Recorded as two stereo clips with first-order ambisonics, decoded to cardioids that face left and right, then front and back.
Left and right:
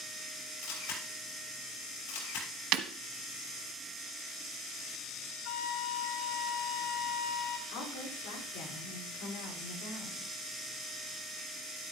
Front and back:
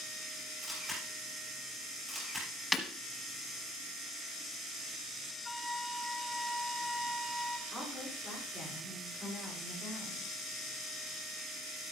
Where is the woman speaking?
105° left, 8.5 m.